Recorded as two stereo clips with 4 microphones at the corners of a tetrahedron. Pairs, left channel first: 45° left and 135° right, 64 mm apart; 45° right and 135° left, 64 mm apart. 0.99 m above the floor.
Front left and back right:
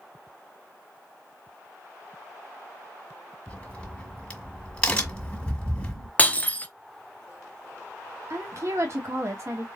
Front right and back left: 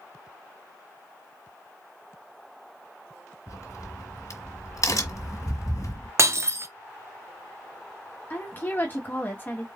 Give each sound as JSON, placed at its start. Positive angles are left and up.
{"t": 3.5, "sound": "a crack", "azimuth_deg": -25, "distance_m": 1.6}
{"t": 6.2, "sound": "breaking glass", "azimuth_deg": 105, "distance_m": 0.6}
{"t": 8.3, "sound": "a woman speaking", "azimuth_deg": -100, "distance_m": 1.3}